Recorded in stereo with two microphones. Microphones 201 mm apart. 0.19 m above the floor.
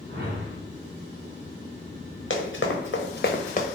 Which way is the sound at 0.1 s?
60° right (ahead or behind).